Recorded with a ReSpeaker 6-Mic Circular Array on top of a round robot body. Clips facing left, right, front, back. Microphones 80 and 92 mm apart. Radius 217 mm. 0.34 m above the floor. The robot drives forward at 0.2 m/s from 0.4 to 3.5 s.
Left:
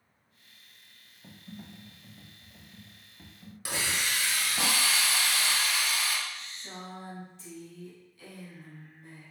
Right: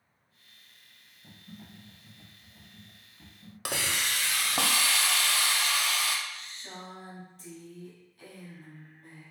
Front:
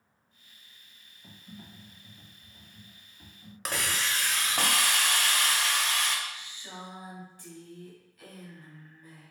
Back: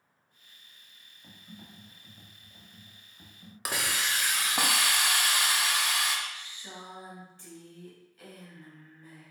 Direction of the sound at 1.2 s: 95° left.